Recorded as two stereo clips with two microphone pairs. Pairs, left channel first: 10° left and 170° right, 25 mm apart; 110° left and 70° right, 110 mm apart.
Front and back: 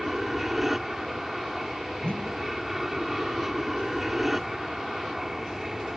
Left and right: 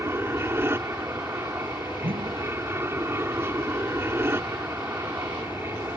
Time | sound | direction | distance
0.0 | an aircraft | 105° right | ?
2.0 | a whoosh | 35° right | ?